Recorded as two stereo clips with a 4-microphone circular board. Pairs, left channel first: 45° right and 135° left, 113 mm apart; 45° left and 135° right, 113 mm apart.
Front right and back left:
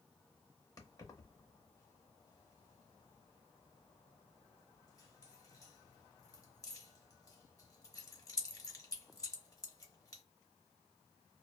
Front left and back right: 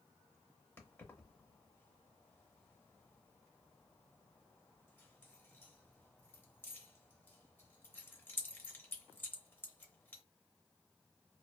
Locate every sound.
0.8 s keys jangling: 10° right, 0.7 m